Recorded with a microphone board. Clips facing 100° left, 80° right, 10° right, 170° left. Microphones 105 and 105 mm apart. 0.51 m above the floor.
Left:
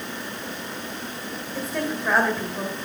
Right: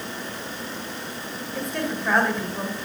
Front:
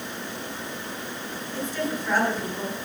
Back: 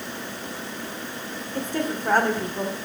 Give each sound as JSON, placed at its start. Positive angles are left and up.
{"t": 1.6, "sound": "a woman speaking", "azimuth_deg": -175, "distance_m": 2.0}